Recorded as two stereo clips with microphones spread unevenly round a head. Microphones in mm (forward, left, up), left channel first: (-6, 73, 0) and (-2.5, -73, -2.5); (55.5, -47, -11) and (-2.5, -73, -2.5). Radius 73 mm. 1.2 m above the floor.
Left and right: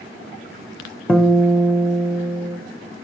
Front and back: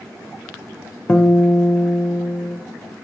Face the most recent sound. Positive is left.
turn(degrees=10)